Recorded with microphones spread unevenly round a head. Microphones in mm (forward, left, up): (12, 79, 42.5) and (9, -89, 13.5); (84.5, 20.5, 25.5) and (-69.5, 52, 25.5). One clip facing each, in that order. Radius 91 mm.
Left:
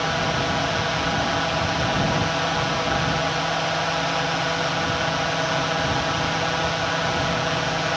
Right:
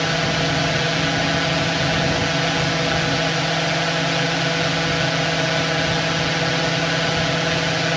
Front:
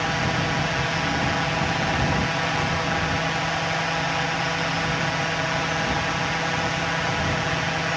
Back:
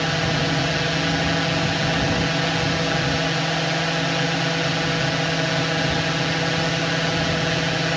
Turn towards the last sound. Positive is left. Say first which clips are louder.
# right 2 dB, back 2 dB
turn(degrees=-145)